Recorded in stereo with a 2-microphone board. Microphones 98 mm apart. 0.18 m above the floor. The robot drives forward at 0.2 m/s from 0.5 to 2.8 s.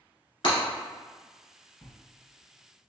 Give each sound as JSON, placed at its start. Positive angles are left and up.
{"t": 0.4, "sound": "breaking glass", "side_deg": 60, "distance_m": 1.6}
{"t": 1.8, "sound": "a bell", "side_deg": 25, "distance_m": 1.0}